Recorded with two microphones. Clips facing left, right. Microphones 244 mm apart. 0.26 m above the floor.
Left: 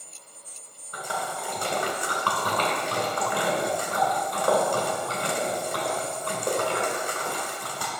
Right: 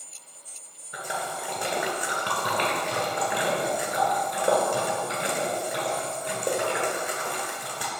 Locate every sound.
0.9 s a splash: 20° right (ahead or behind), 1.8 m